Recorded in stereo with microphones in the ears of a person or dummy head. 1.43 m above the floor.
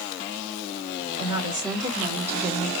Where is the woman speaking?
30° right (ahead or behind), 3 m; by 2.7 s centre (ahead or behind), 1.0 m.